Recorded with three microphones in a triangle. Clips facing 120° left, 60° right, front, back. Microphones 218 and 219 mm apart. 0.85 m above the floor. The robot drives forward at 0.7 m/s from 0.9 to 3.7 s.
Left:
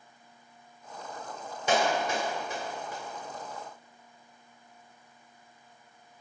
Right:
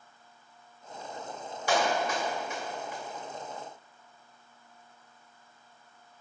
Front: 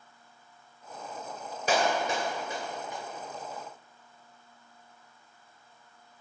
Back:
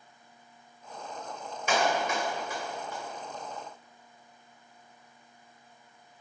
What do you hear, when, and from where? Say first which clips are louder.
1.7 s a clap: left 1 dB, front 1 dB; 55° left, 2.5 m; by 3.0 s 75° left, 2 m